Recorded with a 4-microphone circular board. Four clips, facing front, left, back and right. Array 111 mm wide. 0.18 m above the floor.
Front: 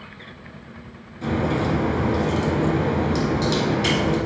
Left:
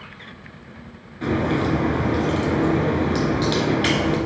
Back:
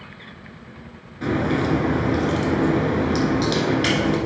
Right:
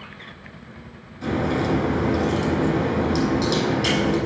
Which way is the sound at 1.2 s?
145° left.